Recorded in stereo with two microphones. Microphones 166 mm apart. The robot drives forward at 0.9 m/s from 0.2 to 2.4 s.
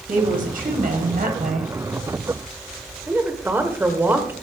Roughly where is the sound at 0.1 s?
Right.